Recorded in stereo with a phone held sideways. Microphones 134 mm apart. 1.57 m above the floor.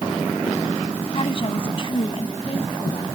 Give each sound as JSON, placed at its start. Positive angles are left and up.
{"t": 1.1, "sound": "a woman speaking", "side_deg": 40}